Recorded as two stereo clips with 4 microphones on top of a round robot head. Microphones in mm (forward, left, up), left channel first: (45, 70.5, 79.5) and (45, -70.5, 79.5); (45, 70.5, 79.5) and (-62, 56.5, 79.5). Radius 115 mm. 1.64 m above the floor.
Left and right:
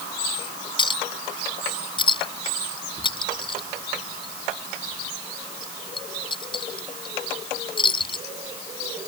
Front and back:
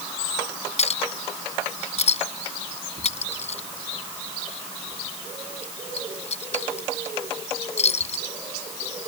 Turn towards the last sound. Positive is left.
turn(degrees=30)